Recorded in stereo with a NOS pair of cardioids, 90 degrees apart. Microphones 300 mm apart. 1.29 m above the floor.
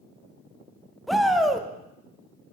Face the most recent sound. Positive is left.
turn(degrees=0)